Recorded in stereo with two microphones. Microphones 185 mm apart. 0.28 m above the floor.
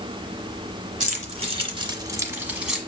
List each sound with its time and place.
1.0 s keys jangling: 40° right (ahead or behind), 1.6 m; by 2.8 s centre (ahead or behind), 1.4 m